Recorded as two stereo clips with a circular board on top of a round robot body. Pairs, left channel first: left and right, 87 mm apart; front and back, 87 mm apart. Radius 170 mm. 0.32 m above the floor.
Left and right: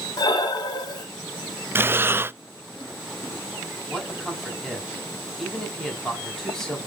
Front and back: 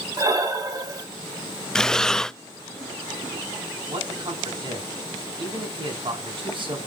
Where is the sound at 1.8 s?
75° right, 0.5 m.